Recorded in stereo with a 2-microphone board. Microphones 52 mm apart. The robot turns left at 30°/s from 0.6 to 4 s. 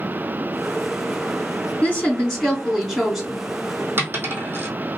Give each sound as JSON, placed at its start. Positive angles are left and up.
{"t": 1.8, "sound": "a woman speaking", "azimuth_deg": 30, "distance_m": 2.0}
{"t": 4.0, "sound": "a dropped coin", "side_deg": -45, "distance_m": 1.7}